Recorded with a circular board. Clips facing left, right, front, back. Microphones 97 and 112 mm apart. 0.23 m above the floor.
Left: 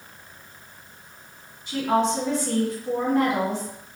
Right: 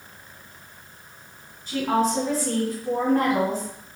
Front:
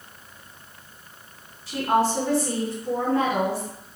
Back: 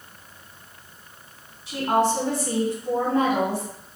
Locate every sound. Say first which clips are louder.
1.7 s a woman speaking: even, even; 120° right, 1.5 m